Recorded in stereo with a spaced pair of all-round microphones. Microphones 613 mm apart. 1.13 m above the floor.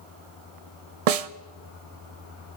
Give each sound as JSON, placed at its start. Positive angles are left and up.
{"t": 1.1, "sound": "a snare drum", "side_deg": -70, "distance_m": 0.6}